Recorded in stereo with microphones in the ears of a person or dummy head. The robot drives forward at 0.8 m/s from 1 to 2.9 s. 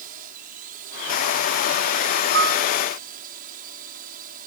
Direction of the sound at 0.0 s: 50° right (ahead or behind).